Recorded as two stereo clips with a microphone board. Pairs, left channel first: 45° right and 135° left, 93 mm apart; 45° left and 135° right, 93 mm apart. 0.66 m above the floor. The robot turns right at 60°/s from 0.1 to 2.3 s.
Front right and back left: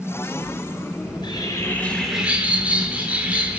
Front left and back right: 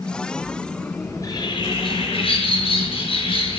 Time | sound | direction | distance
1.1 | a bird | 15° right | 6 m